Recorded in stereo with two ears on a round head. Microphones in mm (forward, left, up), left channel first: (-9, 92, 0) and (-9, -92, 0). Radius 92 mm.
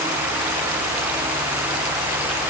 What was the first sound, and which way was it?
Only background noise.